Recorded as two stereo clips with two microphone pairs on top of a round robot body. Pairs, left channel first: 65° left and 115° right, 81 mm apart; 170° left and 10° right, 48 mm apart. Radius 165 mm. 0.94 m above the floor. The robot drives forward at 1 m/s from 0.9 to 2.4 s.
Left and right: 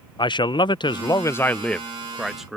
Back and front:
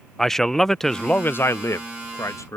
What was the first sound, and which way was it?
A man speaking, 85° left.